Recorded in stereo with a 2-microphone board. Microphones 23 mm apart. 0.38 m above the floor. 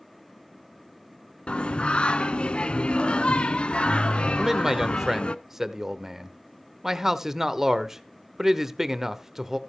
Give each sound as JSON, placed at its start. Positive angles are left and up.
{"t": 1.5, "sound": "singing", "side_deg": 50, "distance_m": 0.5}
{"t": 4.3, "sound": "a man speaking", "side_deg": -20, "distance_m": 0.9}